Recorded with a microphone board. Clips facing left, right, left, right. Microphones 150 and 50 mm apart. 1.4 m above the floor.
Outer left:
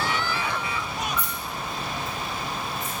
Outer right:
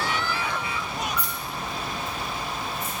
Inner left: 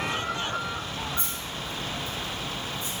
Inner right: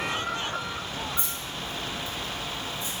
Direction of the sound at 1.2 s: 50° left (ahead or behind).